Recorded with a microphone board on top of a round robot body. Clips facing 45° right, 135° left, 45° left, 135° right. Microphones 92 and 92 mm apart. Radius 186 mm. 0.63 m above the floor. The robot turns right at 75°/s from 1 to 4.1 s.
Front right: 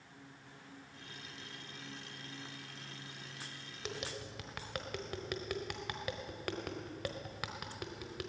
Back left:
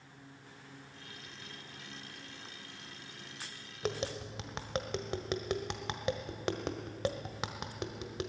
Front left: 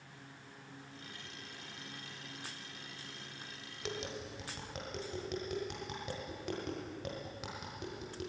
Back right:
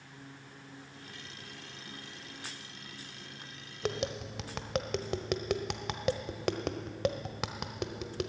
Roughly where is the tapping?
Behind.